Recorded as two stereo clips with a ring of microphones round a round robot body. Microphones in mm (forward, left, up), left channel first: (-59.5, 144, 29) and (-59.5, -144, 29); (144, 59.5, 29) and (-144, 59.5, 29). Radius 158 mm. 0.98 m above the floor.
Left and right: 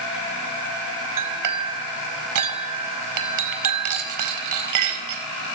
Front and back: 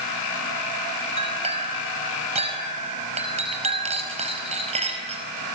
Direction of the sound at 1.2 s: 110° right.